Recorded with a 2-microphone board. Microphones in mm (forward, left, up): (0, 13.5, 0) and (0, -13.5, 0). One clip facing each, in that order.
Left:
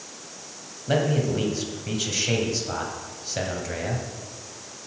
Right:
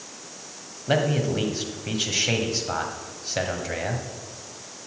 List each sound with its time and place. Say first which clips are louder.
0.9 s a man speaking: even; 15° right (ahead or behind), 1.3 m